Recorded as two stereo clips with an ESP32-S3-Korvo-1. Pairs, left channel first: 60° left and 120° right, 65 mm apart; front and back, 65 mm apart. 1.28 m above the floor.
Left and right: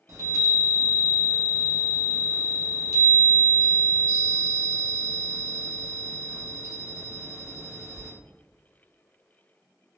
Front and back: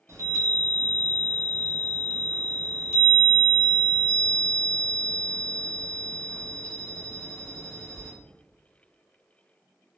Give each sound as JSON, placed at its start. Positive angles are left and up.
{"t": 0.1, "sound": "a chime", "azimuth_deg": -145, "distance_m": 0.7}